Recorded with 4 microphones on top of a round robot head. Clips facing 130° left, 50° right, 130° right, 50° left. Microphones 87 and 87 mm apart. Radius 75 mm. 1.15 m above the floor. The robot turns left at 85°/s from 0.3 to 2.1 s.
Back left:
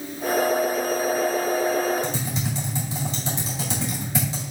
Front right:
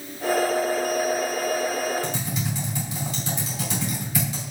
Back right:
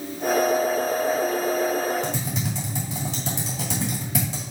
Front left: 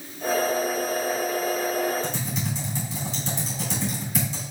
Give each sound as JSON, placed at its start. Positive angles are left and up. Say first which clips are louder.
{"t": 2.0, "sound": "typing on a keyboard", "louder": "back left 1 dB, back right 2 dB", "azimuth_deg": -160, "distance_m": 2.5}